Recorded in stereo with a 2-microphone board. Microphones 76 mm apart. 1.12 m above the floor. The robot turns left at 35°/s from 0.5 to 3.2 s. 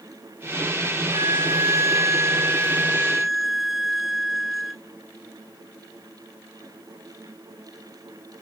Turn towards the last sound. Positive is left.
turn(degrees=-175)